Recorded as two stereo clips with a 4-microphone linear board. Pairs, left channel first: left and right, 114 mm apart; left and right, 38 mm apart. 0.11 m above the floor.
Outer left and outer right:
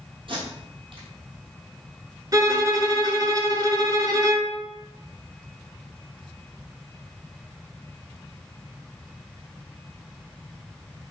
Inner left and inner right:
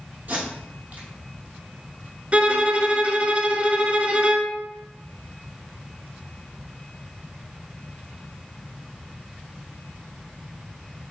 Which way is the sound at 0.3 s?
50° right (ahead or behind).